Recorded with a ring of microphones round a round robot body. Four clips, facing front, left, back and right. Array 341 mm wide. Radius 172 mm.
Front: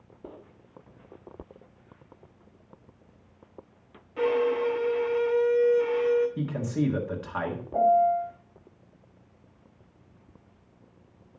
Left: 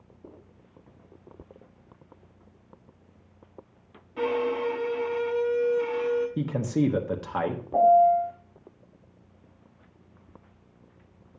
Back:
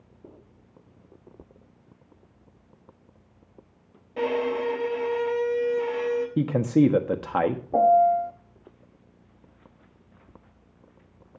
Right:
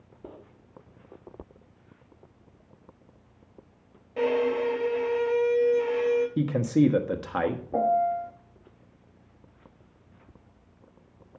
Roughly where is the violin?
Behind right.